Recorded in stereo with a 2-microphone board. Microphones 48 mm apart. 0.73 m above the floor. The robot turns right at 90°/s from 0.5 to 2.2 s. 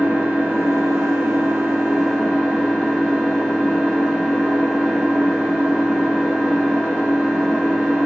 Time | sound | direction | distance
0.0 | an engine running | 145° right | 0.8 m